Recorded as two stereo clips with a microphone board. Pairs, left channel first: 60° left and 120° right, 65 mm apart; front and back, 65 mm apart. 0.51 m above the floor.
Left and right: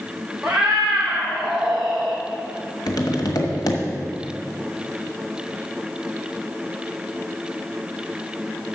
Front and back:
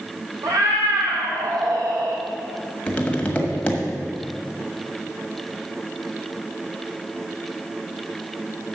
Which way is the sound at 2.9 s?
70° left.